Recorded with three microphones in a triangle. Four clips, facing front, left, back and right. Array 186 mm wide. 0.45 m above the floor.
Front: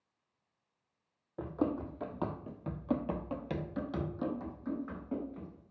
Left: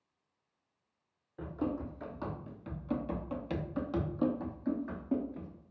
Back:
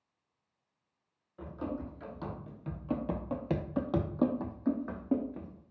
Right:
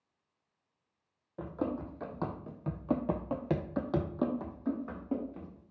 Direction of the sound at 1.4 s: 25° right.